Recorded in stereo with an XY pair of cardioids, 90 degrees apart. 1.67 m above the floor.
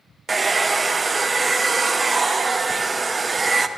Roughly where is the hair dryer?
Ahead right.